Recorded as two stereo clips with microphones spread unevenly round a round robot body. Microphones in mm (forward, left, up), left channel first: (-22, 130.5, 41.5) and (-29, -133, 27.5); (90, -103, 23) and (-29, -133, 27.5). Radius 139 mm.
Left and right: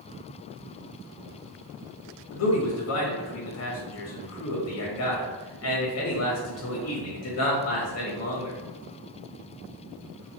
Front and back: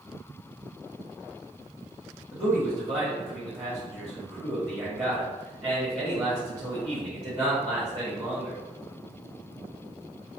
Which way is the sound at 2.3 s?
110° left.